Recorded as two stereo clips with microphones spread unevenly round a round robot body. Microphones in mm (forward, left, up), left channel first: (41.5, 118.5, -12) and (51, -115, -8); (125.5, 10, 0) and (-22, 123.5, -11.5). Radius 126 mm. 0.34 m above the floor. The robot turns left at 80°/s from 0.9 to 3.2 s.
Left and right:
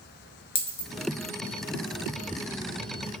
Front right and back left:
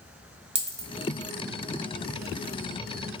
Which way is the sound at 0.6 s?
85° left.